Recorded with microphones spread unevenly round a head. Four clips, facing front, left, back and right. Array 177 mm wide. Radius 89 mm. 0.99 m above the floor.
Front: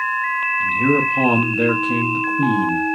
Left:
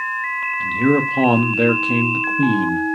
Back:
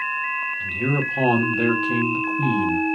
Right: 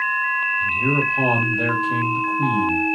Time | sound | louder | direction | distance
0.6 | a man speaking | left 9 dB, front 8 dB | 75° left | 0.9 m